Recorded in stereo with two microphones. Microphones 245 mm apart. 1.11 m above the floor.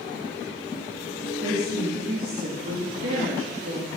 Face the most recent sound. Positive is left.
turn(degrees=-65)  # may be behind; listen again after turning